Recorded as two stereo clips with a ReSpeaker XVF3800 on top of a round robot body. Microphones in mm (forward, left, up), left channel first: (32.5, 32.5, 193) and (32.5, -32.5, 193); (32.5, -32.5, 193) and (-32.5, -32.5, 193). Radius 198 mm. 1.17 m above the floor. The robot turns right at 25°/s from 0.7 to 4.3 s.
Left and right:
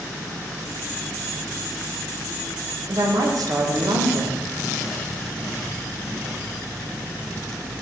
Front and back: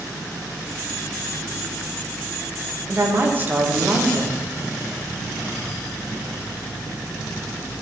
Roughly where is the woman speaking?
Behind right.